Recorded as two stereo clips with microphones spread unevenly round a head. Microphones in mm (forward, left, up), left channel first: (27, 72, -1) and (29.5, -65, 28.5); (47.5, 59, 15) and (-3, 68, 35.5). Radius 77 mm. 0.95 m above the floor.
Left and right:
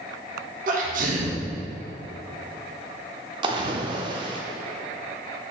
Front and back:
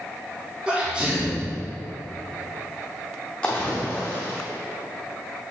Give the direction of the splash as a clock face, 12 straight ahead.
4 o'clock.